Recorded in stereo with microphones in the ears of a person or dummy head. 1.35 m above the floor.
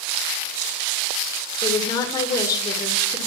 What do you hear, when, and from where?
1.6 s a woman speaking: 15° left (ahead or behind), 1.6 m